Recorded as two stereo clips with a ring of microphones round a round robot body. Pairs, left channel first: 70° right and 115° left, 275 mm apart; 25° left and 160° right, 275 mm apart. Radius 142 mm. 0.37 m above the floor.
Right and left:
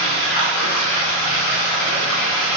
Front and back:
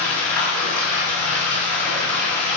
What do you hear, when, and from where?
0.0 s running water: 65° right, 3 m